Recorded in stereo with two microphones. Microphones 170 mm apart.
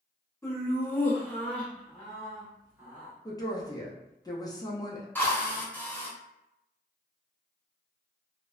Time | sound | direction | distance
0.4 | laughter | 15° left (ahead or behind) | 0.9 m
3.2 | a woman speaking | 20° left (ahead or behind) | 0.5 m
5.2 | a drill | 10° left (ahead or behind) | 0.6 m